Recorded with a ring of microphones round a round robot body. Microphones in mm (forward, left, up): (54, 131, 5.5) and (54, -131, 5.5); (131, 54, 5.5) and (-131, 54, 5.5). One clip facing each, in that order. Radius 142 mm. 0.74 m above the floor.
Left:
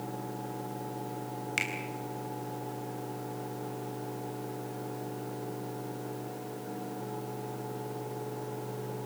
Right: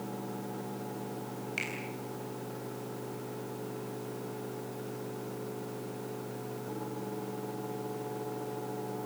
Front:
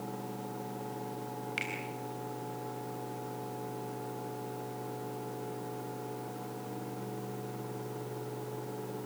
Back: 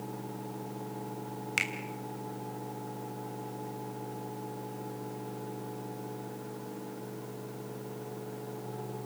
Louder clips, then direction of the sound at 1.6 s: Left 1 dB, even; 160° left.